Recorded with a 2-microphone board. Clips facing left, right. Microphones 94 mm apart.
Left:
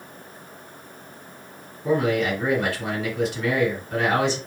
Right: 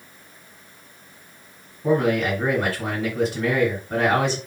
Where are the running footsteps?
No running footsteps in this recording.